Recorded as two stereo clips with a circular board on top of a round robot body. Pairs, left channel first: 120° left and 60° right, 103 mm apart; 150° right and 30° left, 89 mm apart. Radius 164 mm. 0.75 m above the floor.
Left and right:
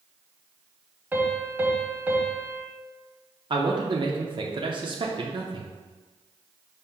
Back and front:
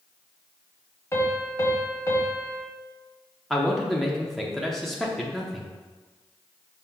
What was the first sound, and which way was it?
A piano, 120° right.